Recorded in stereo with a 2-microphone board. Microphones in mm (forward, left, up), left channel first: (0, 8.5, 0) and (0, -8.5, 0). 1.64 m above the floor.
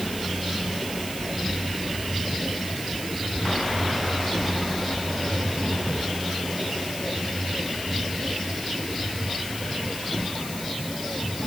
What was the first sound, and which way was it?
Only background noise.